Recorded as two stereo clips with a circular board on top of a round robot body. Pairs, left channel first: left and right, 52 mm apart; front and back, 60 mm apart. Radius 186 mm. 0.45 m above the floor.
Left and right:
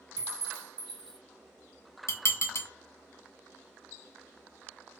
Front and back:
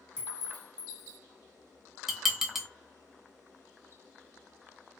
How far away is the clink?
About 1.5 m.